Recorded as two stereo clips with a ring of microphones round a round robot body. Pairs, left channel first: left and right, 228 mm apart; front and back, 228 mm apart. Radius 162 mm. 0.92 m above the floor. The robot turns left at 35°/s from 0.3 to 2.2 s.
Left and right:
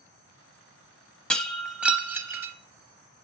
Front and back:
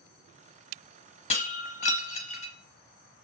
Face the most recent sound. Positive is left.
turn(degrees=-20)